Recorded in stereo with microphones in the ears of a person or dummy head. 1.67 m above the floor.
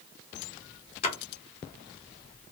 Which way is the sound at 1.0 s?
30° left (ahead or behind).